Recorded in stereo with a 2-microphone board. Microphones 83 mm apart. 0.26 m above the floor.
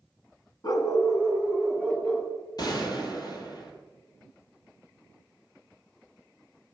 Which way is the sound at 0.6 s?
55° left (ahead or behind).